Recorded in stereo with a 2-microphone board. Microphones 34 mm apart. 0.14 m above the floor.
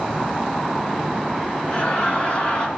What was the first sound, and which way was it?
Laughter, 35° left (ahead or behind).